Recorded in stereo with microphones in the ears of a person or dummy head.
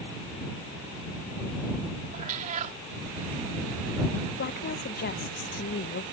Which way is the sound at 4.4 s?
55° left (ahead or behind).